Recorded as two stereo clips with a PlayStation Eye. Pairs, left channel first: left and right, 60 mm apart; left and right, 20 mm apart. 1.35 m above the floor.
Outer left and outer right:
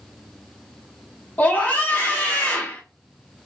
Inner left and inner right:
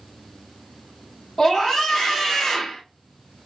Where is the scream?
25° left (ahead or behind), 0.9 m.